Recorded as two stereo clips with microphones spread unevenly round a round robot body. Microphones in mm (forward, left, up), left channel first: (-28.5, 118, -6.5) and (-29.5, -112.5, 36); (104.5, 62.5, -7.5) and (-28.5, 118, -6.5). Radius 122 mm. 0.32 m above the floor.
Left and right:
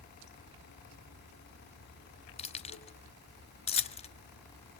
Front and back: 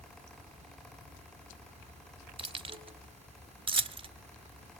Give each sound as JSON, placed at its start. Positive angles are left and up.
{"t": 0.0, "sound": "running water", "azimuth_deg": 120, "distance_m": 2.5}
{"t": 2.4, "sound": "keys jangling", "azimuth_deg": 125, "distance_m": 0.9}